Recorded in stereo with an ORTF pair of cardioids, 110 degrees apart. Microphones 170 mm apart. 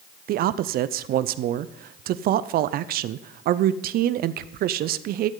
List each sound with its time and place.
0.3 s a man speaking: 65° right, 0.5 m